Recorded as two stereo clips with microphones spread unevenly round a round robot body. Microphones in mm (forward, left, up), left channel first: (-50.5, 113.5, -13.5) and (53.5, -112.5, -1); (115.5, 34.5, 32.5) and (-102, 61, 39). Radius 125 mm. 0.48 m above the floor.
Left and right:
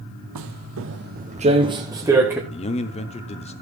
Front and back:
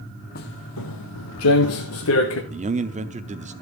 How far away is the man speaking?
About 0.7 m.